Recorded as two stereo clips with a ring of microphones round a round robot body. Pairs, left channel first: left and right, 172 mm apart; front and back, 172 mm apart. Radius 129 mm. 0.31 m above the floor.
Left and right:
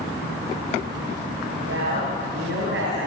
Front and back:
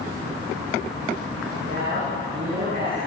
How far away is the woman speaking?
About 7 m.